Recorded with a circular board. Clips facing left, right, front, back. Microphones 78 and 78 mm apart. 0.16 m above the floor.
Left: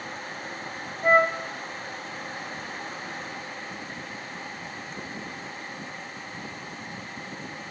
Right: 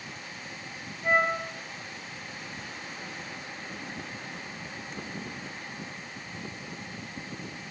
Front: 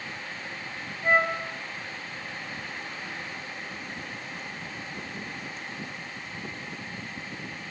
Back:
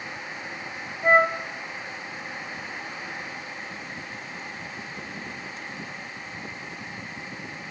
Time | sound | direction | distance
1.0 | a flute | 130° left | 2.5 m